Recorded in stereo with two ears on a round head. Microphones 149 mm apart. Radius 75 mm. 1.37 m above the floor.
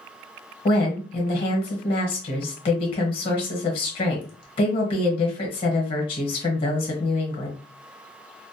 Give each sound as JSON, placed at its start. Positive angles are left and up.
{"t": 0.7, "sound": "a woman speaking", "side_deg": 35, "distance_m": 0.9}